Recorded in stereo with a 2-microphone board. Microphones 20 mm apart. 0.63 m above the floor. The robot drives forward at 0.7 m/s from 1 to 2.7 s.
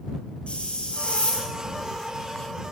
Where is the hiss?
75° left (ahead or behind), 4 m; by 1.5 s 70° left (ahead or behind), 4 m.